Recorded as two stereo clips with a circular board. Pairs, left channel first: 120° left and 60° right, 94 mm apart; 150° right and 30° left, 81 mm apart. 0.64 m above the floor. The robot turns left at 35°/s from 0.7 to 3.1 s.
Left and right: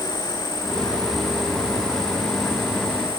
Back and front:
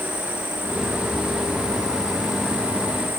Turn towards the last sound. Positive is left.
turn(degrees=-55)